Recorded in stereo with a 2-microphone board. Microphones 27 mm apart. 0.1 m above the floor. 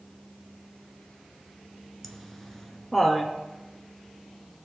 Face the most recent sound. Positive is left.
turn(degrees=5)  # may be behind; listen again after turning